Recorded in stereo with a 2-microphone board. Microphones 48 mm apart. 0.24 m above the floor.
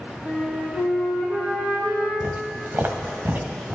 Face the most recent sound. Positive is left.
turn(degrees=-50)  # may be behind; listen again after turning